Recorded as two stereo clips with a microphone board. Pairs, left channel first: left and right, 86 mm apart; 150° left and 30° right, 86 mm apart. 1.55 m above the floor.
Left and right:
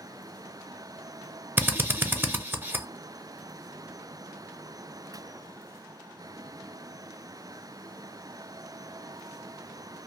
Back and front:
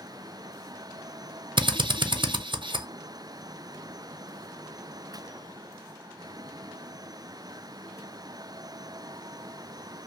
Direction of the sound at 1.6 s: 25° right.